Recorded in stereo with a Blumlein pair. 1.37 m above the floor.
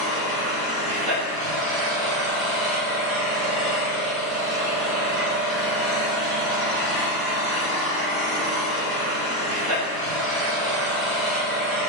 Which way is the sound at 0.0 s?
20° right.